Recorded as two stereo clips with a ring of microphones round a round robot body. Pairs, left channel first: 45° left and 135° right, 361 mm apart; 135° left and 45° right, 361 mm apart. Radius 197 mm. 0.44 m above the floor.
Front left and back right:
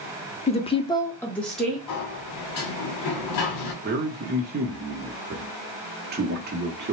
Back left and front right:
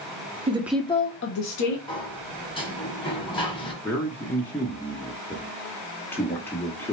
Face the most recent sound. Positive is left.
turn(degrees=-150)